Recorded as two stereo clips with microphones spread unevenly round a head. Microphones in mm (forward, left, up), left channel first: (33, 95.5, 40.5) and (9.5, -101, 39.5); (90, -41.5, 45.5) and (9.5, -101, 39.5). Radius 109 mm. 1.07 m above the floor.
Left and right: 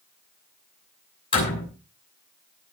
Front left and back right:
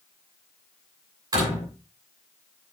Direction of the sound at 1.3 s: 150° left.